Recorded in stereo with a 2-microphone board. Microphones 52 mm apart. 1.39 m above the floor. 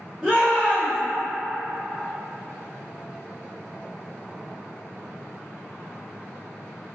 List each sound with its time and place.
0.2 s a shout: 10° right (ahead or behind), 1.0 m